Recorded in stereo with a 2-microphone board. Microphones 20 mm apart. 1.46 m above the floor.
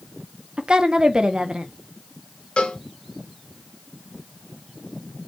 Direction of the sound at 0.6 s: 40° right (ahead or behind).